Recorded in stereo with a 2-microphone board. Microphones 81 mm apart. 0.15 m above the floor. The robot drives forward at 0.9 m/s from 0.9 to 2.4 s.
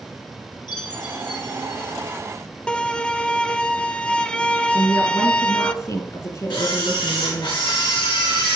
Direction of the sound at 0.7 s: 55° left (ahead or behind).